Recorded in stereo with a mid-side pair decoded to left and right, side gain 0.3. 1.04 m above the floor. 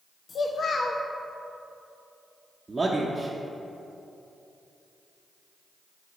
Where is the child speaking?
60° left, 0.6 m.